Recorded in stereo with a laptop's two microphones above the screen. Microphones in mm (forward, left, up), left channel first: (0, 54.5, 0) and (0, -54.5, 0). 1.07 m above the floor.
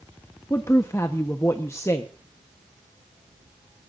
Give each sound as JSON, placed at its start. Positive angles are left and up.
{"t": 0.5, "sound": "a woman speaking", "side_deg": 25, "distance_m": 1.2}